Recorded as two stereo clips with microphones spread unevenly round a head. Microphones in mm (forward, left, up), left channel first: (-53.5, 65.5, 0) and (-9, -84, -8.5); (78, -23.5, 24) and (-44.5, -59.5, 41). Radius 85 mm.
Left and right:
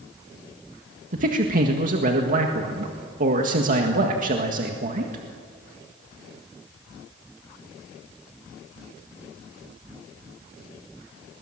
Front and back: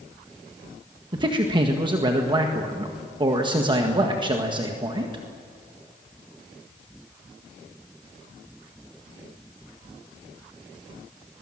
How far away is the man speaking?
About 1.8 m.